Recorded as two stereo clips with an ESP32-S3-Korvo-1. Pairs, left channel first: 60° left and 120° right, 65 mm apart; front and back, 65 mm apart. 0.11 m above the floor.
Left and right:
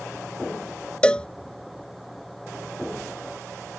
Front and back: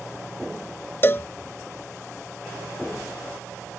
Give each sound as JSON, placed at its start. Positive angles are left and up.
{"t": 1.0, "sound": "a cowbell", "azimuth_deg": 0}